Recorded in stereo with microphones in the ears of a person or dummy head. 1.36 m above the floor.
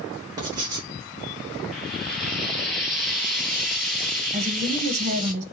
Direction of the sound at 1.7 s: Centre (ahead or behind).